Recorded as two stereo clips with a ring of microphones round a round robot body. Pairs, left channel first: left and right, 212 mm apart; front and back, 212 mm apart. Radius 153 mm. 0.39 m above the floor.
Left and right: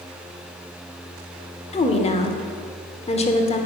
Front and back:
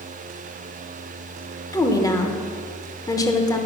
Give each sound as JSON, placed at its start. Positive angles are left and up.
{"t": 1.7, "sound": "a woman speaking", "azimuth_deg": 60, "distance_m": 1.0}